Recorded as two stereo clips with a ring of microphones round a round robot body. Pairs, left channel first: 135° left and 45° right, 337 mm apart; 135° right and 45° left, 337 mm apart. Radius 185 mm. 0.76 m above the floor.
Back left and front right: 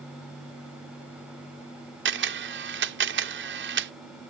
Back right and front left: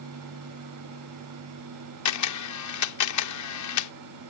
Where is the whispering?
No whispering in this recording.